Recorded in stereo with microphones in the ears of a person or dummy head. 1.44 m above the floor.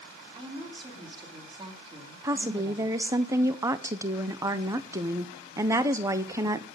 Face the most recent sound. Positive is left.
turn(degrees=-20)  # may be behind; listen again after turning